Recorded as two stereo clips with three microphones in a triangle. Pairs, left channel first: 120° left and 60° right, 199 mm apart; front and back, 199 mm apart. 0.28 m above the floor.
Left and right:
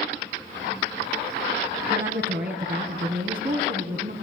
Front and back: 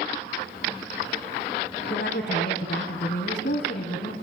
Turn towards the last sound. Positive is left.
turn(degrees=-30)